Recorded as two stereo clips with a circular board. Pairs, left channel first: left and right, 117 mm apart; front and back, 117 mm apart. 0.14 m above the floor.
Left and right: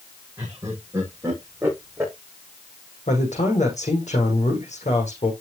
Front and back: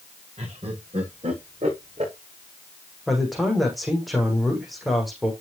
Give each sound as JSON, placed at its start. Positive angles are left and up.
{"t": 0.4, "sound": "laughter", "azimuth_deg": -150, "distance_m": 6.5}
{"t": 3.1, "sound": "a man speaking", "azimuth_deg": 90, "distance_m": 7.0}